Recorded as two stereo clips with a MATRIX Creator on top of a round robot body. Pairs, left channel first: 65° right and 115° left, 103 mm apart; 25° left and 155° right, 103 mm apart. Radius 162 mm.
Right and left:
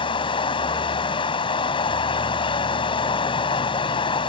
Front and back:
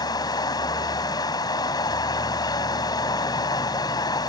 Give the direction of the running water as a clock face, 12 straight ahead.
1 o'clock.